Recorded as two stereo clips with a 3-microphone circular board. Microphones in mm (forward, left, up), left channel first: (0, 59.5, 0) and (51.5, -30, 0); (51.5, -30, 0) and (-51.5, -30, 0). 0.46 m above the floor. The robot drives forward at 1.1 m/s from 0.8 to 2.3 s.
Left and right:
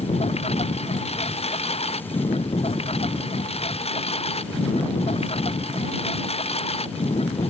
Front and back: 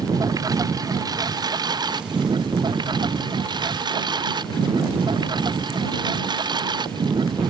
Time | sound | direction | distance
0.0 | a lawn mower | 125° left | ?